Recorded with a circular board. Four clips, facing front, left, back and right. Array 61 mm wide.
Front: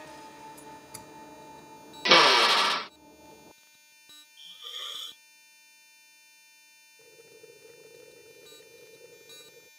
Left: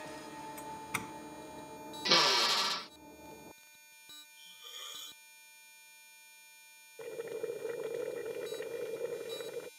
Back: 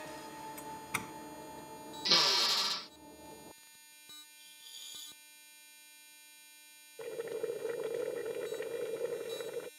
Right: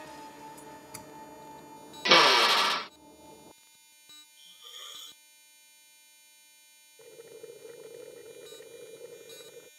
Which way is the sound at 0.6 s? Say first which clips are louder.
Left 5 dB, back 5 dB; 135° left.